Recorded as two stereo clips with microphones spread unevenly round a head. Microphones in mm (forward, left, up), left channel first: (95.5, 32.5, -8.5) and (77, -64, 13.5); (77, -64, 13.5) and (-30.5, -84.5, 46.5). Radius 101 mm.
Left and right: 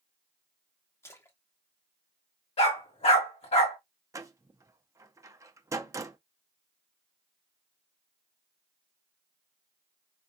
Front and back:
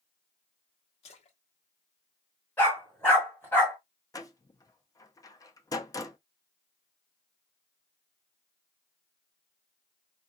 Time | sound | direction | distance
1.0 | a splash | 15° left | 1.0 m
2.6 | a dog barking | 100° left | 1.9 m
4.1 | a door slam | 55° right | 0.7 m